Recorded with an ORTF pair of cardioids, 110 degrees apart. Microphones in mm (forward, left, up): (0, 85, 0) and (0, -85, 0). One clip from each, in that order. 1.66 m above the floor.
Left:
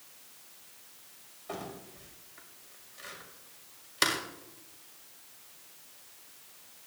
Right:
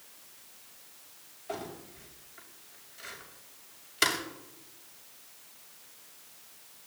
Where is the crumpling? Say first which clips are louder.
Right 2 dB; 20° left, 6.5 m.